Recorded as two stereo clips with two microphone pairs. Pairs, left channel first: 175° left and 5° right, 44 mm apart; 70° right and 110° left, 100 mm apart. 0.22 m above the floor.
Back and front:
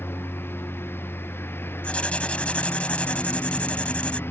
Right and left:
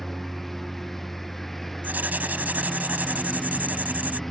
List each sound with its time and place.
0.0 s a lawn mower: 160° right
1.8 s writing: 160° left